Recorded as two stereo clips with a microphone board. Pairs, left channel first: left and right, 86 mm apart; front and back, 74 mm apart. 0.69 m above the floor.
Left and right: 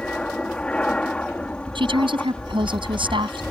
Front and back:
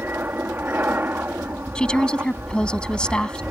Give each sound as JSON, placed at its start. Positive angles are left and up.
{"t": 0.0, "sound": "an aircraft", "azimuth_deg": 155}
{"t": 1.8, "sound": "a woman speaking", "azimuth_deg": -80}